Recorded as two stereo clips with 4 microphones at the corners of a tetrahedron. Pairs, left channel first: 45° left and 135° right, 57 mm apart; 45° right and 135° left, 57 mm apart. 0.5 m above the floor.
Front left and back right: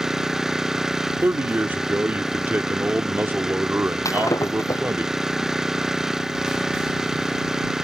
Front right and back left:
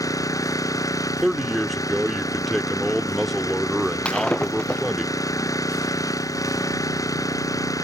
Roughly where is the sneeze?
I don't hear a sneeze.